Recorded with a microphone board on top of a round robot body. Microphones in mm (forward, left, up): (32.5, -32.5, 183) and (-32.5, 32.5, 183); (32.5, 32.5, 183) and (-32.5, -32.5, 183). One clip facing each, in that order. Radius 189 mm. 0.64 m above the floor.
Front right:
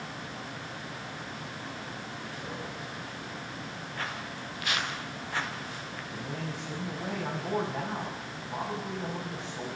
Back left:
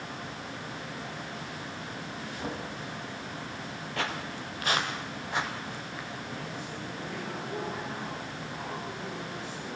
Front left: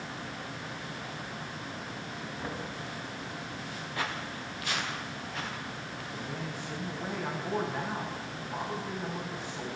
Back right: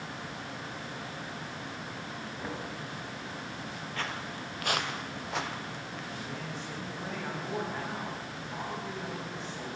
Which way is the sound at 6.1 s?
35° right.